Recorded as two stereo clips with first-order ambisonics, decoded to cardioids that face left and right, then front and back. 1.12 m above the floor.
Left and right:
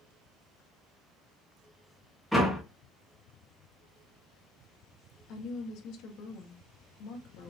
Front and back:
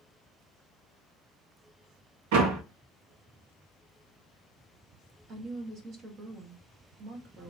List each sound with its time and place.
2.3 s a door slam: straight behind, 1.6 m
5.3 s a woman speaking: 125° left, 1.4 m